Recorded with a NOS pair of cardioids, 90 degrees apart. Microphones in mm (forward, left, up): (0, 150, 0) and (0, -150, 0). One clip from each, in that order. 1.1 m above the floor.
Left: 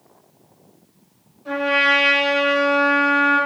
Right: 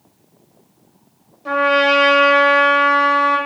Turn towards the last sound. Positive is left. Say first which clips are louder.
# right 3 dB
turn(degrees=-50)